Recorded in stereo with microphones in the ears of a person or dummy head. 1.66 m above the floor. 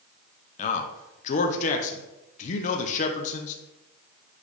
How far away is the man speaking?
About 0.6 m.